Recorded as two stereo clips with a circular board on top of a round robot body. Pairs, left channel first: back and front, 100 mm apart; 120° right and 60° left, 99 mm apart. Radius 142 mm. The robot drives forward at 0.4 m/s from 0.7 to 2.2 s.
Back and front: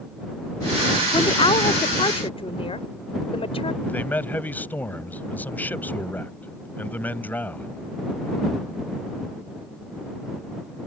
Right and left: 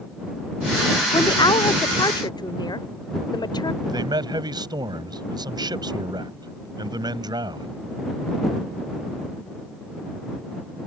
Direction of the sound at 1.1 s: 160° right.